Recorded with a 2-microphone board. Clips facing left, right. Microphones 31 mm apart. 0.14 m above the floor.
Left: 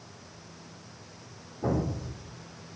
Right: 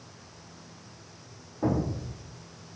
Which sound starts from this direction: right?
An explosion, at 1.6 s.